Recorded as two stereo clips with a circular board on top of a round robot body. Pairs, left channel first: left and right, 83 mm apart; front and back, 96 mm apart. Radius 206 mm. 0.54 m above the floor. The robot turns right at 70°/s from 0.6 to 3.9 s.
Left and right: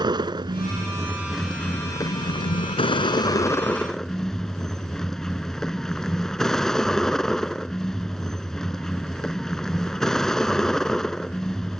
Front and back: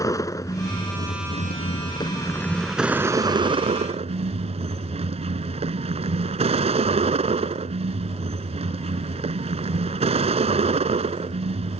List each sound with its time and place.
0.0 s a vehicle: 55° right; by 11.8 s 175° left